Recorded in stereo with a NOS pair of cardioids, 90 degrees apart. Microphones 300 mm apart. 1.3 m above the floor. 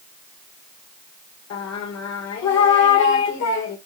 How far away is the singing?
About 2 m.